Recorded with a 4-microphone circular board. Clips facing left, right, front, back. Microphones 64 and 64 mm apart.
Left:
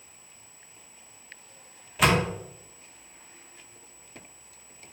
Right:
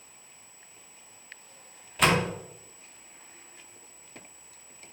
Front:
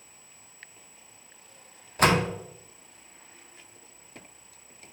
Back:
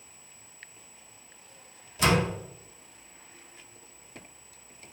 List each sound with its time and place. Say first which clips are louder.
2.0 s a door slam: left 1 dB, front 2 dB; straight ahead, 0.5 m